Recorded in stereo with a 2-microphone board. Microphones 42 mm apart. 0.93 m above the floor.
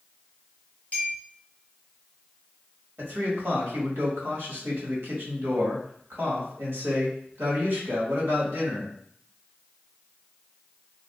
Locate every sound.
0.9 s a clink: 30° left (ahead or behind), 1.5 m
3.0 s a man speaking: 65° right (ahead or behind), 1.7 m